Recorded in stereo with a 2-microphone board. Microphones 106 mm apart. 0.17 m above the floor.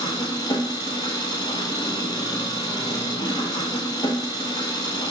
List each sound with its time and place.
0.0 s an engine running: 40° left (ahead or behind), 0.9 m